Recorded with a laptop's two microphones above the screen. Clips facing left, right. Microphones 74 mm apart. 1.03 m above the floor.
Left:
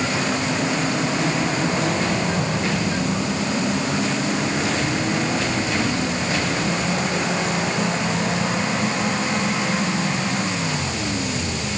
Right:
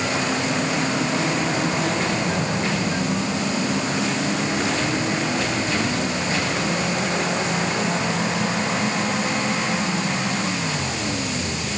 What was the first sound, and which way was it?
Only background noise.